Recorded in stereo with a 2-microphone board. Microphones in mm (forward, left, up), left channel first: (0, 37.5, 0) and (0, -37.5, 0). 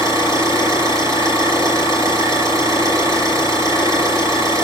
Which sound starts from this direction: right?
An engine running, at 0.0 s.